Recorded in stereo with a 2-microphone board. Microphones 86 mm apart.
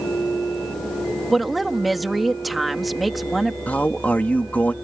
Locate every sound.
1.3 s a woman speaking: centre (ahead or behind)
3.7 s a man speaking: 20° left (ahead or behind)